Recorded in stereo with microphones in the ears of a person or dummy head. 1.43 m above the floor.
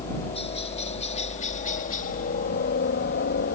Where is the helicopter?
30° left (ahead or behind); by 3.5 s 55° left (ahead or behind).